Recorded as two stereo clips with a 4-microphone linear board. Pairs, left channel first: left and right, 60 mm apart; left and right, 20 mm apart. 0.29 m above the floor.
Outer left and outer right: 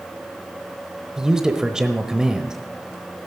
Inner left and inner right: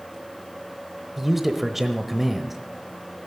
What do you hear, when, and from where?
1.2 s a man speaking: 10° right (ahead or behind), 1.0 m